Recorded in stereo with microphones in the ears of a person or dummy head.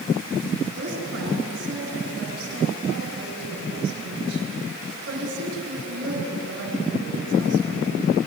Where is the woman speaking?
75° right (ahead or behind), 7 m.